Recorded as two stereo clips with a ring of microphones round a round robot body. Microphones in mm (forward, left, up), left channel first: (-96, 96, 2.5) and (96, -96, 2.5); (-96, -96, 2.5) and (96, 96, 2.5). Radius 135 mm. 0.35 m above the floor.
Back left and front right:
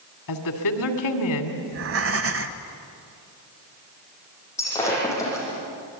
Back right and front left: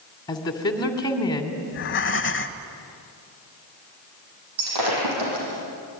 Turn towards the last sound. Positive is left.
turn(degrees=55)